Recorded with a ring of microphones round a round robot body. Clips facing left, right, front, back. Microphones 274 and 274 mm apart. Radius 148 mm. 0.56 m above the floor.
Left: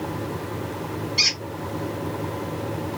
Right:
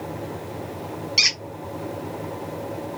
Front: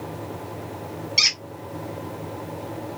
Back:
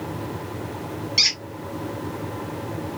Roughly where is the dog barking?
No dog barking in this recording.